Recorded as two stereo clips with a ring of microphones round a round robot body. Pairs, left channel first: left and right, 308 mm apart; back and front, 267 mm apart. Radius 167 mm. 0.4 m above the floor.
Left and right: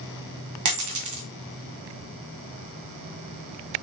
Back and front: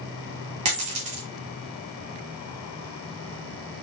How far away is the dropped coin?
About 1.8 m.